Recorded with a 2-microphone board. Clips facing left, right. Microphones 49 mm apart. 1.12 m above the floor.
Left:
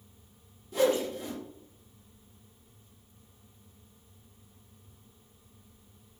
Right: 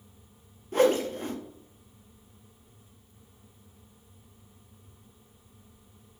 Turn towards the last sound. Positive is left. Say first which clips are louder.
# right 3 dB
turn(degrees=-45)  # may be behind; listen again after turning